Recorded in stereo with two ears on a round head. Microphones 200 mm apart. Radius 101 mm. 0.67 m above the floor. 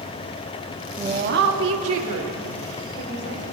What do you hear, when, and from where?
1.0 s a woman speaking: 20° right (ahead or behind), 0.7 m; by 3.4 s 70° right (ahead or behind), 3 m